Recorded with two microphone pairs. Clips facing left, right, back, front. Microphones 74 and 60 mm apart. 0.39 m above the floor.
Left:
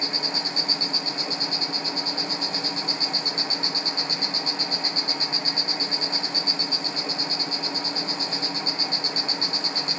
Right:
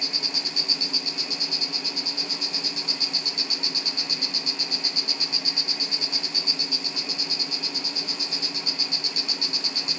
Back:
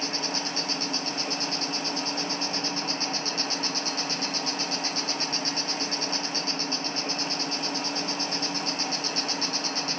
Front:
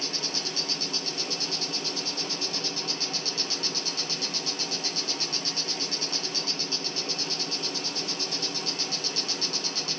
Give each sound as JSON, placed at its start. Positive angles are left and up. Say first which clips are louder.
{"t": 0.0, "sound": "an insect", "louder": "left 5 dB, back 4 dB", "azimuth_deg": 135, "distance_m": 1.7}